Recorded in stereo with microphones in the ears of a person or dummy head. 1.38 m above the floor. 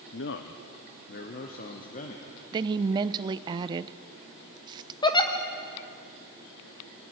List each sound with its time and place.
0.1 s a man speaking: 60° left (ahead or behind), 0.8 m; by 2.4 s 40° left (ahead or behind), 1.8 m
2.5 s a woman speaking: 25° right (ahead or behind), 0.6 m
5.0 s a giggle: 25° left (ahead or behind), 1.3 m